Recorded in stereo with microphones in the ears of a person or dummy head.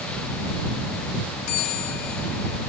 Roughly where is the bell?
Left.